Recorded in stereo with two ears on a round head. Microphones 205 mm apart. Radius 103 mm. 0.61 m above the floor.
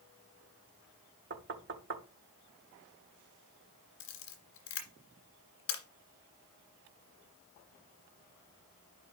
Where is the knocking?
50° right (ahead or behind), 1.1 m.